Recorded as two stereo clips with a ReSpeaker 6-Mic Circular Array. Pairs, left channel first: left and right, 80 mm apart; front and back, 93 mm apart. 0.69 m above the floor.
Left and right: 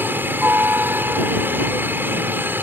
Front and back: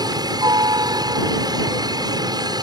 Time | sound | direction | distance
0.0 | a helicopter | 150° right | ?